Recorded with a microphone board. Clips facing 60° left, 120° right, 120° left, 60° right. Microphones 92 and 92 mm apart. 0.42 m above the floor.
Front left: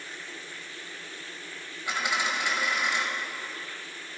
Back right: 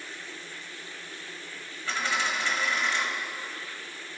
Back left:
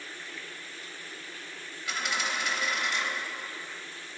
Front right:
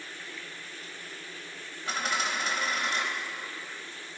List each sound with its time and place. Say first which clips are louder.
1.9 s a dropped coin: even, front right 2 dB; 15° right, 1.1 m